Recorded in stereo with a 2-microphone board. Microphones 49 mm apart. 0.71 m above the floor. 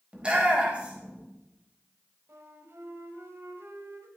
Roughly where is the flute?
Right.